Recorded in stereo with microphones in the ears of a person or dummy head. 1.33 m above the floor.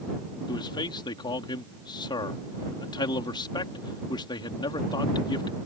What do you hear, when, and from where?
0.5 s a man speaking: 20° left (ahead or behind)